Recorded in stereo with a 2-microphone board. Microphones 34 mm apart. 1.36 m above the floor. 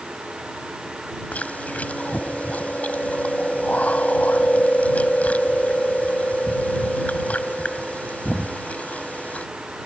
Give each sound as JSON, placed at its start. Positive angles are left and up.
{"t": 1.3, "sound": "chewing", "side_deg": 50}